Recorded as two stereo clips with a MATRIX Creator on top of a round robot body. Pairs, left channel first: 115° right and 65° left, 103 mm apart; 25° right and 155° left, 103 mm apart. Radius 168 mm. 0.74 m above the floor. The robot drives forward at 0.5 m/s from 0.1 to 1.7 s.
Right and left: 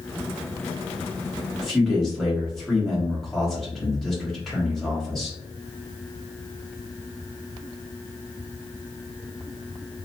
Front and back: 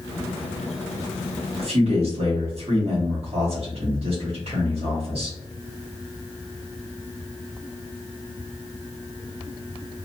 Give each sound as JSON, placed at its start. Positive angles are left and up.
{"t": 1.6, "sound": "a man speaking", "azimuth_deg": 160, "distance_m": 2.0}